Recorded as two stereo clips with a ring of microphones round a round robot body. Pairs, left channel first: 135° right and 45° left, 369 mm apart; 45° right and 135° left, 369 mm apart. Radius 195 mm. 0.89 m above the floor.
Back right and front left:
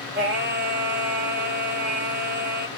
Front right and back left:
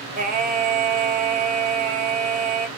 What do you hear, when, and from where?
0.1 s singing: 85° left, 0.8 m